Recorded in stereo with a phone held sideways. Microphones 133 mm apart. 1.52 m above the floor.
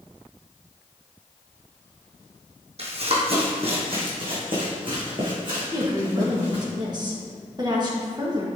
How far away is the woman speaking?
About 2.5 m.